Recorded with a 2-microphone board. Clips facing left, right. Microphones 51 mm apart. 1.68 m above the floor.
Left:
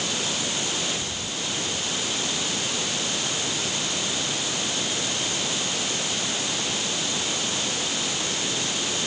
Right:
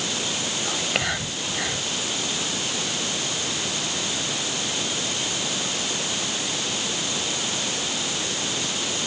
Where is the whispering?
85° right.